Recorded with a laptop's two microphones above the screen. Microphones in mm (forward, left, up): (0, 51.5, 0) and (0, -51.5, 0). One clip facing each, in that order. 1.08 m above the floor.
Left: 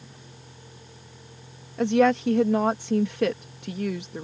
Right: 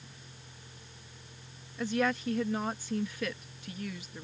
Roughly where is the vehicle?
Left.